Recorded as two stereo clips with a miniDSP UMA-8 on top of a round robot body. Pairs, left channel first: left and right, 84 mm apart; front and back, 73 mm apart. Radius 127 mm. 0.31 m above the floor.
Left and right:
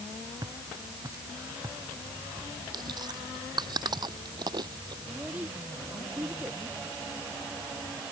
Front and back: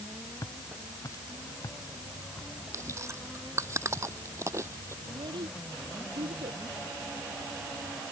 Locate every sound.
0.4 s footsteps: 45° right; by 2.5 s 40° right
2.7 s chewing: 130° right
5.0 s a child speaking: 165° right